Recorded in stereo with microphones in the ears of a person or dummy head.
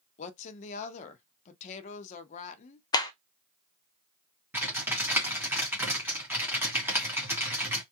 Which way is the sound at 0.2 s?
45° left (ahead or behind).